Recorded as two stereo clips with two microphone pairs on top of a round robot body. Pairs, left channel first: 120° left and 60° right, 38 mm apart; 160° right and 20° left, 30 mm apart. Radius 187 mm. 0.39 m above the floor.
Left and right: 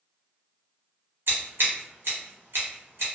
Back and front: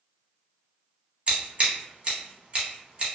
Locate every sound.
1.3 s scissors: 35° right, 1.1 m